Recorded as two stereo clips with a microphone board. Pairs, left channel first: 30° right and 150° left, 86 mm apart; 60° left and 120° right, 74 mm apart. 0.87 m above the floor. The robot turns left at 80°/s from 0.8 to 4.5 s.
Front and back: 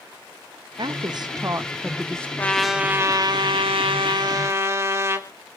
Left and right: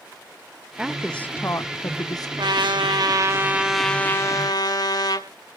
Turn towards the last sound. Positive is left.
turn(degrees=90)